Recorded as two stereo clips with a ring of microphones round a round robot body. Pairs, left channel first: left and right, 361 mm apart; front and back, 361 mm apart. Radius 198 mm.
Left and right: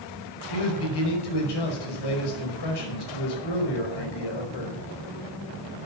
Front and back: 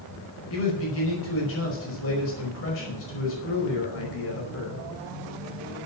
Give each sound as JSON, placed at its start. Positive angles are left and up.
{"t": 0.5, "sound": "a man speaking", "azimuth_deg": 60, "distance_m": 5.0}